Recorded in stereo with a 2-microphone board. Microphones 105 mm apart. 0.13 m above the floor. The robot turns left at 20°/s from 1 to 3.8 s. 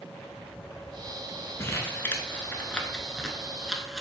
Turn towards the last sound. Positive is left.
turn(degrees=-5)  # may be behind; listen again after turning